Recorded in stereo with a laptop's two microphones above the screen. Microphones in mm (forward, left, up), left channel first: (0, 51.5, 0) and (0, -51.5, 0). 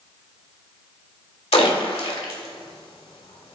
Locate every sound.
1.5 s a splash: 70° left (ahead or behind), 1.5 m